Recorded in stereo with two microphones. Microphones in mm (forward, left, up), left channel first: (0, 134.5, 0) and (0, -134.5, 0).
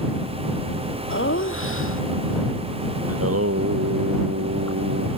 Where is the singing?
60° right (ahead or behind).